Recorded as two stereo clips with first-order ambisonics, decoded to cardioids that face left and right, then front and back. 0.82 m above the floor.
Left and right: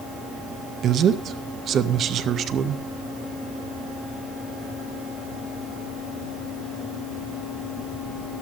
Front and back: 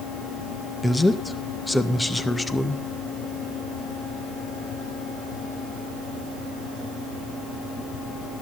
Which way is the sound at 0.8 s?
80° right.